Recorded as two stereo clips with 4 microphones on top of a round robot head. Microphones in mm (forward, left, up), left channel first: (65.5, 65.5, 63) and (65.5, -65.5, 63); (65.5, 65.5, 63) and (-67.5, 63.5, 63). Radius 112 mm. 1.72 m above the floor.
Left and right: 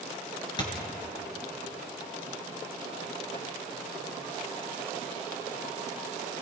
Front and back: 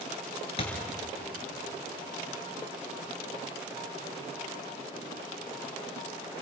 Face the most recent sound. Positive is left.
turn(degrees=40)